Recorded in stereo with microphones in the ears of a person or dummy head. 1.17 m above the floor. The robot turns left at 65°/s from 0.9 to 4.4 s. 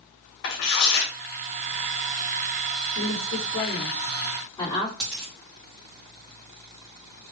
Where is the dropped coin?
10° left (ahead or behind), 1.2 m.